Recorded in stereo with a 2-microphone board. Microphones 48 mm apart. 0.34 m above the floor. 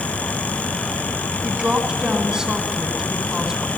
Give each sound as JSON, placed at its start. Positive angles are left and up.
{"t": 1.4, "sound": "a woman speaking", "side_deg": -15, "distance_m": 3.5}